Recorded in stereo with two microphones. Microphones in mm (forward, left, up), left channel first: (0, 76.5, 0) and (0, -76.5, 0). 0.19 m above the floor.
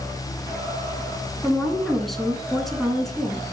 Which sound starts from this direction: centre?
A woman speaking, at 1.4 s.